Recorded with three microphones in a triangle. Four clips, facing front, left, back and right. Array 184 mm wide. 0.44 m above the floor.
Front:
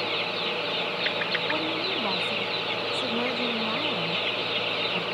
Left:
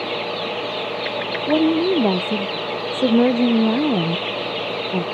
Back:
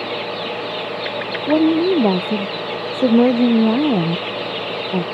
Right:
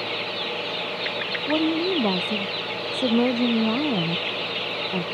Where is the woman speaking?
160° left.